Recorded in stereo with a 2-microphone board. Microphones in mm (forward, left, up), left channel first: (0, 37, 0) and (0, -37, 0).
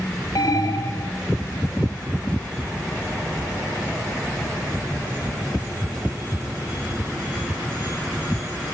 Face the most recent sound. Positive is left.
turn(degrees=55)  # may be behind; listen again after turning